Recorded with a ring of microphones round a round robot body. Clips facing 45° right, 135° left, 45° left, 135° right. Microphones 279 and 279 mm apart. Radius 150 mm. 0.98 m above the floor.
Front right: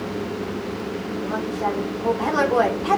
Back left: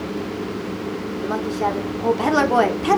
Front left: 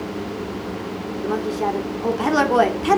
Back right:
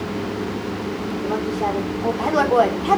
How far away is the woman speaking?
About 3.5 m.